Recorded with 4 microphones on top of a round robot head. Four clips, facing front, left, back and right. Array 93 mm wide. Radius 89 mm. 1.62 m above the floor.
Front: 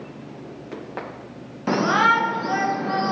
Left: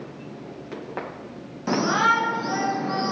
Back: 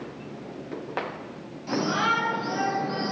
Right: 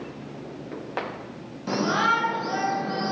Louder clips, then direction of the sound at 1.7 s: Left 2 dB, front 7 dB; 15° left.